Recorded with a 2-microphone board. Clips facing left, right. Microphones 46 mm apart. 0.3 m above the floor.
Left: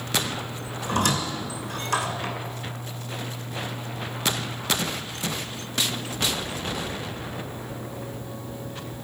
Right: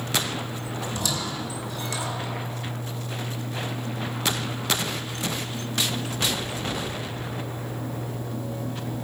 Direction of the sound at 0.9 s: 50° left (ahead or behind).